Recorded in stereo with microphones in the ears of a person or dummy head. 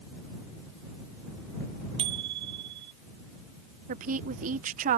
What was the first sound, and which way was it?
A bicycle bell, 25° right (ahead or behind).